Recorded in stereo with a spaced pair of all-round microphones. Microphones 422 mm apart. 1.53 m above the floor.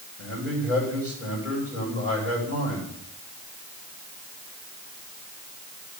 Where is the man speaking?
35° right (ahead or behind), 8.5 m.